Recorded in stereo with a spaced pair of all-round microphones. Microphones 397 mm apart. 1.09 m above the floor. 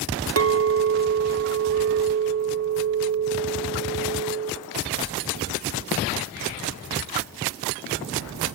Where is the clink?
35° right (ahead or behind), 0.5 m.